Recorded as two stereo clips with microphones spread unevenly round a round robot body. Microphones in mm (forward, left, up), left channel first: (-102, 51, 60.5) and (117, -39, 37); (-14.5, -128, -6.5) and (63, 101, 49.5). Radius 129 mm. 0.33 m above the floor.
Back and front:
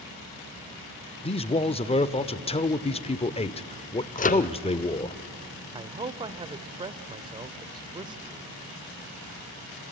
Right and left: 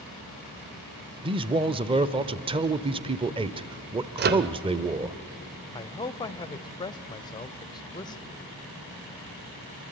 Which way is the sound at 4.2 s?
115° left.